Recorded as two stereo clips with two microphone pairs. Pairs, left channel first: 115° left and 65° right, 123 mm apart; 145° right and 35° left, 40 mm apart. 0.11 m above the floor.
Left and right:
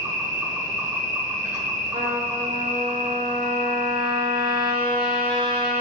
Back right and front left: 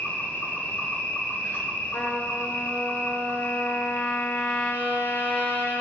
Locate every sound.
0.0 s an insect: 135° right, 1.7 m
1.9 s a trumpet: 110° right, 1.7 m